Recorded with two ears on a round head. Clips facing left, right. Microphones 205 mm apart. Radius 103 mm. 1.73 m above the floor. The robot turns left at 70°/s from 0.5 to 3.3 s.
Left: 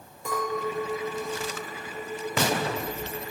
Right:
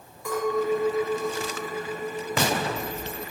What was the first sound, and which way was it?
A clink, 25° left.